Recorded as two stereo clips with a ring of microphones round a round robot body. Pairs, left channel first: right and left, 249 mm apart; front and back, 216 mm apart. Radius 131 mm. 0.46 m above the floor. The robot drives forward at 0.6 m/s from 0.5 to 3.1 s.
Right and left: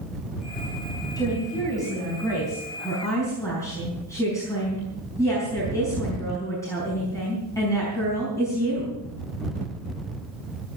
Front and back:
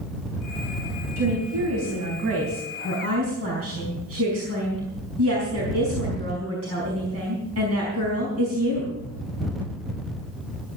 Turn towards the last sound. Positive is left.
turn(degrees=-170)